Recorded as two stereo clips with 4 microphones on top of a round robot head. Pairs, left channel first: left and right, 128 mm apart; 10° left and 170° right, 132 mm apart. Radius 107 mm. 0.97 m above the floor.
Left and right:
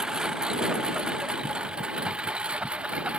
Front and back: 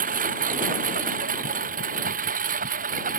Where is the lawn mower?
175° right.